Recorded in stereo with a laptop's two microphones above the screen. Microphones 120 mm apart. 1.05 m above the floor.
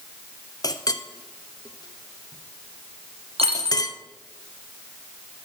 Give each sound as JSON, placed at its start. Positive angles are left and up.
{"t": 0.6, "sound": "a clink", "side_deg": 30, "distance_m": 0.6}
{"t": 3.4, "sound": "a dropped coin", "side_deg": -60, "distance_m": 2.0}